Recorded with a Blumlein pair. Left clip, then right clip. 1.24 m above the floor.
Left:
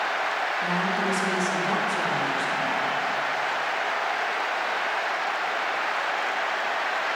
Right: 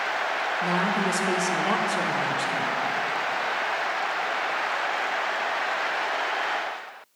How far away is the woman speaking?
About 1.2 m.